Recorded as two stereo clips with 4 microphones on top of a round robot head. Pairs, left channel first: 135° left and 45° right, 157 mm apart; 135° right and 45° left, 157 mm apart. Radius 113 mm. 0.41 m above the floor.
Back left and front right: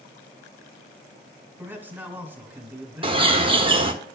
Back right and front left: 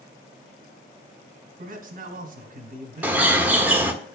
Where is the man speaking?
30° left, 1.8 m.